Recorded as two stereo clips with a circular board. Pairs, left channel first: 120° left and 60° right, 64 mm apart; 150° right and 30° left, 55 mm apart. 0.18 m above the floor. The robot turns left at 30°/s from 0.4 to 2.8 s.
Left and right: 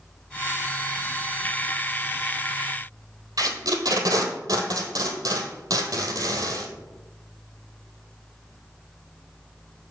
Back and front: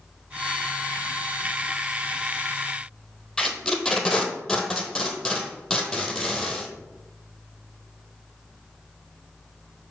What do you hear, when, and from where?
3.4 s tape being pulled: 70° right, 1.1 m